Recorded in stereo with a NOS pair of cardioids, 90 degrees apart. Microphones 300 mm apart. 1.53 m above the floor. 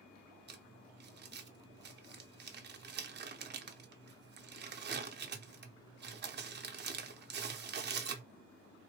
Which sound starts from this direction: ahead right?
Crumpling, at 0.5 s.